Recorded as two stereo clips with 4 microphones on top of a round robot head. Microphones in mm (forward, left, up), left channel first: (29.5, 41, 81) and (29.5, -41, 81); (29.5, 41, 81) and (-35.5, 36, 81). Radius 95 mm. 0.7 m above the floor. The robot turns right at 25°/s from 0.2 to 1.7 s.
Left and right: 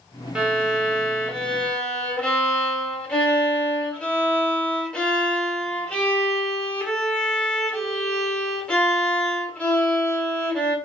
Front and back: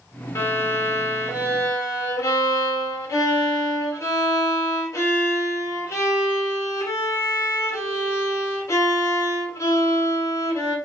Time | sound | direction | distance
0.3 | a violin | 15° right | 1.6 m